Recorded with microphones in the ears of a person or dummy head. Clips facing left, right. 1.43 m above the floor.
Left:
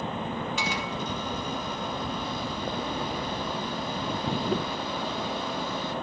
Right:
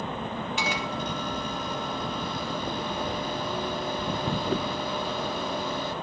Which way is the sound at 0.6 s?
55° right (ahead or behind).